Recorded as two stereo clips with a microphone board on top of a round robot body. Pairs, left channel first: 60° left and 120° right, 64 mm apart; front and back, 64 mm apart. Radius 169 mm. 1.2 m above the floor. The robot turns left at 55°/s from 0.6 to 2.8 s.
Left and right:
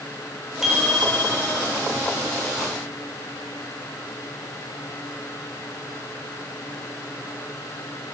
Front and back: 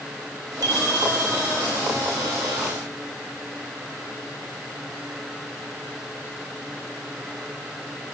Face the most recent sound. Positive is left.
turn(degrees=40)